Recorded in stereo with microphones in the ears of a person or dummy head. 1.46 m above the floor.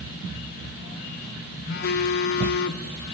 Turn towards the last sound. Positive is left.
turn(degrees=50)  # may be behind; listen again after turning